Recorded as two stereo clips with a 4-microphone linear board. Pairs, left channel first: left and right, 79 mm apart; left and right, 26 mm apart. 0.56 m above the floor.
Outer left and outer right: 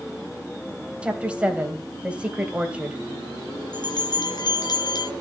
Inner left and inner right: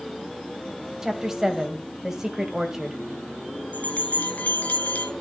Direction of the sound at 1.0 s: 15° right (ahead or behind).